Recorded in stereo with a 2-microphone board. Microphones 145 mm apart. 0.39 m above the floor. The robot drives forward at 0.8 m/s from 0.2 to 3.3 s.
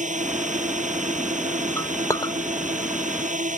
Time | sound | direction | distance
0.0 | a drone | 60° right (ahead or behind) | ?
1.8 | a clink | 20° left (ahead or behind) | ?